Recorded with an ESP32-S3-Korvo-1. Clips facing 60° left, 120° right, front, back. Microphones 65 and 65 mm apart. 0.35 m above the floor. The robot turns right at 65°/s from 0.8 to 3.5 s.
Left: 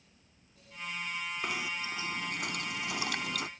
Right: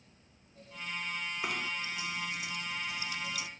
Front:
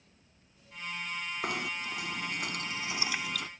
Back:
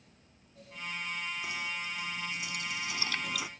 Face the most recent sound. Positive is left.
turn(degrees=100)